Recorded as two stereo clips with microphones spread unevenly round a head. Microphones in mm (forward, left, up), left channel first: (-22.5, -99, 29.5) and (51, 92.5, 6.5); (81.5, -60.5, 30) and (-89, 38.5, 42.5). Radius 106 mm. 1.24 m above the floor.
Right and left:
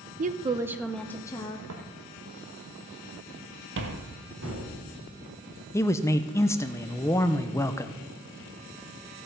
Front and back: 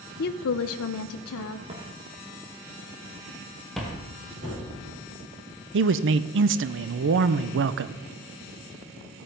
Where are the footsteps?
90° left, 2.5 m; by 4.0 s 55° left, 1.7 m.